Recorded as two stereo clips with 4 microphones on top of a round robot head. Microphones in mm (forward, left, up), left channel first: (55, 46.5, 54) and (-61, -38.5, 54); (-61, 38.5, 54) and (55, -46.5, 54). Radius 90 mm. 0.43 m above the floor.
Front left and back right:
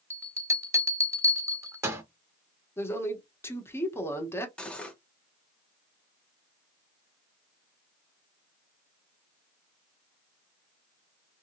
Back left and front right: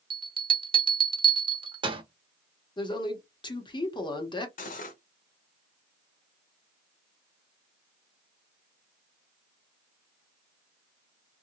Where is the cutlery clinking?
120° left, 0.8 m.